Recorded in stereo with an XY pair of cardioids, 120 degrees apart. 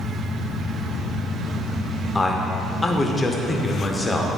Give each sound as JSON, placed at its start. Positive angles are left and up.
{"t": 2.1, "sound": "a man speaking", "azimuth_deg": 15, "distance_m": 0.9}